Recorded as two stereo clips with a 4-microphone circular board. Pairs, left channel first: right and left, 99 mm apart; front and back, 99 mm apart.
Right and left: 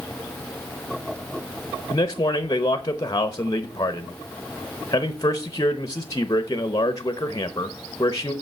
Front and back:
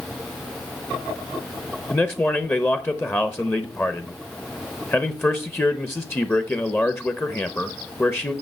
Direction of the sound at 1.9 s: 60° right.